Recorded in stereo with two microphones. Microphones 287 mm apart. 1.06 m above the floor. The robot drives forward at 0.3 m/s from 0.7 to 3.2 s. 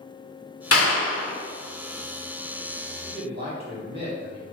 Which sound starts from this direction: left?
A clap, at 0.7 s.